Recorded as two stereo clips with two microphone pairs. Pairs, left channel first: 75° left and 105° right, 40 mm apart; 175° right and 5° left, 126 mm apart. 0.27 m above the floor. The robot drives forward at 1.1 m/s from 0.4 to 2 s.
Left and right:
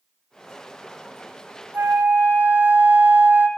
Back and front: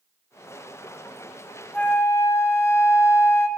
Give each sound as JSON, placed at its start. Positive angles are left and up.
{"t": 1.7, "sound": "a flute", "azimuth_deg": -95, "distance_m": 1.2}